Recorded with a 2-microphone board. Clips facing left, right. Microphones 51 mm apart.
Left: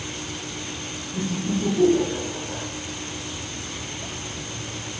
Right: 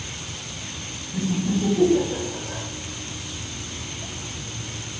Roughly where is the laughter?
Centre.